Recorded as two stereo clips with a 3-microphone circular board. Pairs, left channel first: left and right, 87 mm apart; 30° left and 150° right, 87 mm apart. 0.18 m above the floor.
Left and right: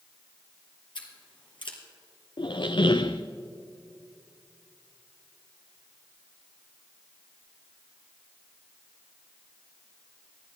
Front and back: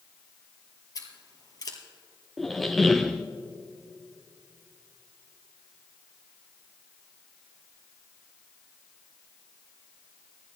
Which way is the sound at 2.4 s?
120° left.